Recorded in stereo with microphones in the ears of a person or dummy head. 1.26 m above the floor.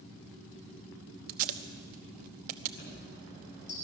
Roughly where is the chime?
Left.